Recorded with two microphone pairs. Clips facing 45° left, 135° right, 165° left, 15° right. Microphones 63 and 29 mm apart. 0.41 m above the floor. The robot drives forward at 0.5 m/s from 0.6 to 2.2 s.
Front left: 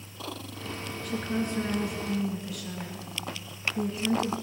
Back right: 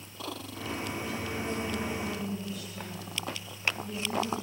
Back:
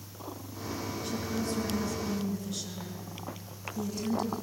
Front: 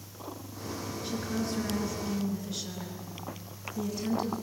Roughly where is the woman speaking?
Ahead left.